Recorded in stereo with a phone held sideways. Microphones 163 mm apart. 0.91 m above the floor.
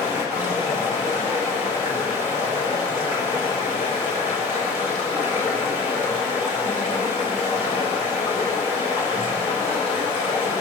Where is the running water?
45° left (ahead or behind), 4 m.